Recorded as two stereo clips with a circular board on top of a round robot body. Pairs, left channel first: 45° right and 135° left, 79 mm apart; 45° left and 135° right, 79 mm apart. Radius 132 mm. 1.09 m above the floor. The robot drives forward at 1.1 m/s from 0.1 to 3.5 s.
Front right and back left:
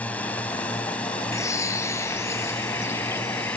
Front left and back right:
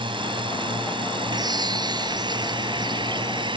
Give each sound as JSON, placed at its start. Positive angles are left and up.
{"t": 0.0, "sound": "a drone", "azimuth_deg": -120}
{"t": 1.3, "sound": "a bird", "azimuth_deg": -100}